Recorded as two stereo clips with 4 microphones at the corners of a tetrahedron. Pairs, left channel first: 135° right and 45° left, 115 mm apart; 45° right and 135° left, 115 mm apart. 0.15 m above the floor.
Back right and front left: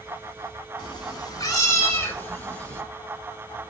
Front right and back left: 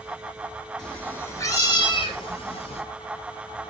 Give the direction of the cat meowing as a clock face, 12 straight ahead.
4 o'clock.